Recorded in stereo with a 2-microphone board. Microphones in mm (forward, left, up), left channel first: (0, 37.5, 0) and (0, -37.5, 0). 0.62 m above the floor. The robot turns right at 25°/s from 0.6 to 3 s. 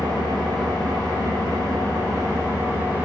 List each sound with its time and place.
0.0 s an engine running: 85° right, 2.0 m; by 3.0 s 25° right, 2.0 m